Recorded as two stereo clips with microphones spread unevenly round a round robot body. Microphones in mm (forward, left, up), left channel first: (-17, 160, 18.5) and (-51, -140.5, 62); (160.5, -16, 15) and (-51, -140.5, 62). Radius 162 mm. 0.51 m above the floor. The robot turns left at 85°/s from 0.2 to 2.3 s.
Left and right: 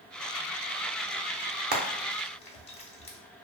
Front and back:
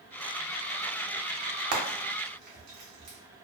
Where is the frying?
160° right, 0.7 m; by 3.2 s 150° left, 0.7 m.